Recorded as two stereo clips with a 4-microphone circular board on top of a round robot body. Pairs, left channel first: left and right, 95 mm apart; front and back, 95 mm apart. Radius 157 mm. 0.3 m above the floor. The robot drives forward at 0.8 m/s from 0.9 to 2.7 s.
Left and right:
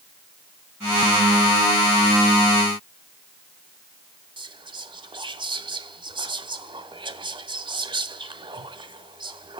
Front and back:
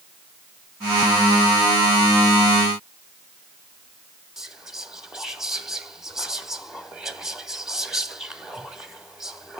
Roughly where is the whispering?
Right.